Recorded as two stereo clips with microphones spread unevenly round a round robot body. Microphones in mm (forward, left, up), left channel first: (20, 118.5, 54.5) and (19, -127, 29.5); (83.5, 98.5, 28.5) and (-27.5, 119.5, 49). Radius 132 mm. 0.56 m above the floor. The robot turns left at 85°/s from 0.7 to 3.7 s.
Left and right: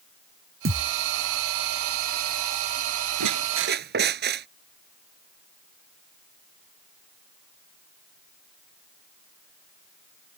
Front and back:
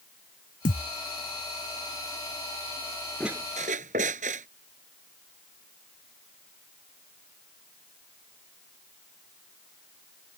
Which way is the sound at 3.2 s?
100° right.